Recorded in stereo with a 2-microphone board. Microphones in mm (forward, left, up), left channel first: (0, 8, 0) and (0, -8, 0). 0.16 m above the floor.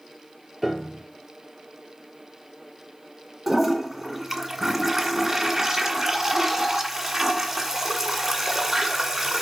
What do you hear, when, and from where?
0.6 s a piano: 10° right (ahead or behind), 1.8 m
3.5 s a toilet flushing: 15° right (ahead or behind), 1.7 m